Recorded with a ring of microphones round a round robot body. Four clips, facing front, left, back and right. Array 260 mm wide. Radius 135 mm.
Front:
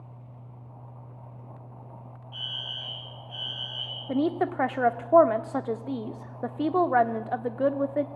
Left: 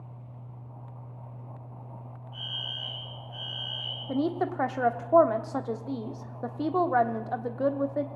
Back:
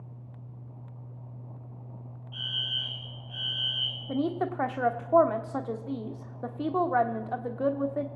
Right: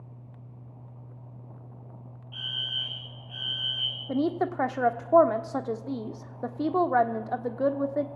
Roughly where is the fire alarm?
Right.